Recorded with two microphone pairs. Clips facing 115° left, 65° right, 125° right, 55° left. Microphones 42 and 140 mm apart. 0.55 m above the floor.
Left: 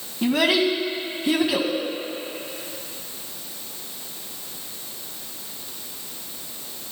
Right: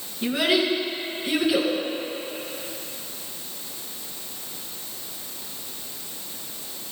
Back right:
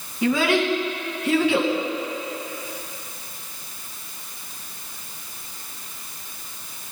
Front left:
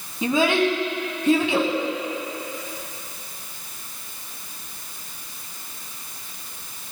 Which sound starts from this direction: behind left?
A child speaking, at 0.2 s.